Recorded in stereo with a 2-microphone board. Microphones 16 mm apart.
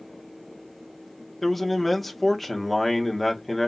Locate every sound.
1.4 s a man speaking: 5° left (ahead or behind), 1.2 m